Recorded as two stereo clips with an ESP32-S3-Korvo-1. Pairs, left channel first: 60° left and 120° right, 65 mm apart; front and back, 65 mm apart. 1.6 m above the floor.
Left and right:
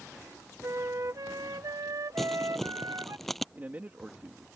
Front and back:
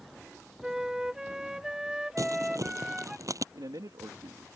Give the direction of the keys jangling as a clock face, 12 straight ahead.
I don't hear keys jangling.